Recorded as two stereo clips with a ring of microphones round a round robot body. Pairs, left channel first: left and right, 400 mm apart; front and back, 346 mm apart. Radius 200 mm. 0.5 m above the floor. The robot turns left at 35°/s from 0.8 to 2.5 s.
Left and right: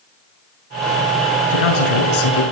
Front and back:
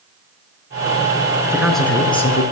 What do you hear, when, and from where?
1.5 s a man speaking: 100° left, 6.5 m; by 2.4 s 65° left, 6.5 m